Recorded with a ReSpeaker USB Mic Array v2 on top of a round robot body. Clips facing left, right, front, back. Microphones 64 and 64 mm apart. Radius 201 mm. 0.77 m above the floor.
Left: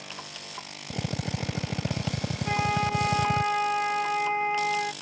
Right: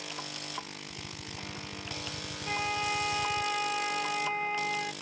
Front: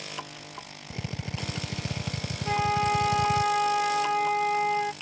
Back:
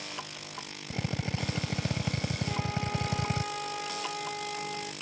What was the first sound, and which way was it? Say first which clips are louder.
A drill: left 11 dB, back 2 dB; 120° left.